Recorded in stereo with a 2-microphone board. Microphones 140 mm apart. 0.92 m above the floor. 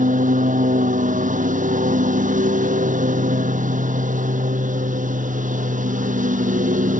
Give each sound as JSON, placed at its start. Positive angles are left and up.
{"t": 0.0, "sound": "a lawn mower", "side_deg": -70}